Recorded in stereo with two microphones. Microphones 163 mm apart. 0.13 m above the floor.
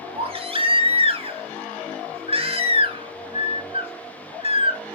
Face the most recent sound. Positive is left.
turn(degrees=-40)  # may be behind; listen again after turning